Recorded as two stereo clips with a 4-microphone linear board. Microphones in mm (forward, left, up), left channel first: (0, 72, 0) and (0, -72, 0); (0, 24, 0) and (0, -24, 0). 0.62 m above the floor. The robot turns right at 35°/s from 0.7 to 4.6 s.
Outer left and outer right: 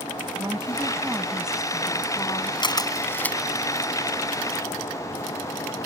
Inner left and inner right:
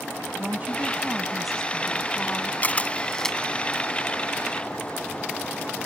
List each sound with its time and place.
0.3 s a woman speaking: 30° right; by 2.5 s 35° left
2.6 s a camera shutter: 35° left (ahead or behind); by 3.4 s 5° left (ahead or behind)